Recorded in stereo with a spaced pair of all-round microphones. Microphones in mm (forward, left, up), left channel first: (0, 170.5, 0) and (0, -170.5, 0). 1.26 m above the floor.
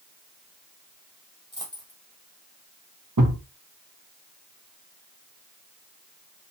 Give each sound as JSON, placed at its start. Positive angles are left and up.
{"t": 1.5, "sound": "a dropped coin", "side_deg": 15, "distance_m": 2.5}
{"t": 3.2, "sound": "a thud", "side_deg": -60, "distance_m": 1.3}